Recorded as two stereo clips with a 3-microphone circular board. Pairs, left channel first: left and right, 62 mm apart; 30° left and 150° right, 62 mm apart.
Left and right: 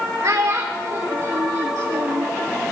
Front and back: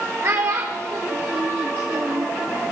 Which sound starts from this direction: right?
A child speaking, at 0.2 s.